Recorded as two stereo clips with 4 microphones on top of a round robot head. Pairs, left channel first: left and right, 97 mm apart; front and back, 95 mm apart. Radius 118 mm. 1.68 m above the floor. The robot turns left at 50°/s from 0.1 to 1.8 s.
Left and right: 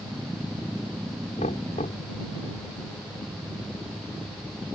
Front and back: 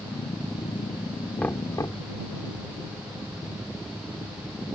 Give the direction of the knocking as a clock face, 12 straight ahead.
10 o'clock.